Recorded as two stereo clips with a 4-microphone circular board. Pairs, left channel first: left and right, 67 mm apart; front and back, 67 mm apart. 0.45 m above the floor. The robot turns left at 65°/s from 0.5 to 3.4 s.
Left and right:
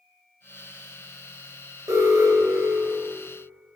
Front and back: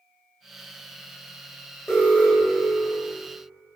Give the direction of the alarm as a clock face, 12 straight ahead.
2 o'clock.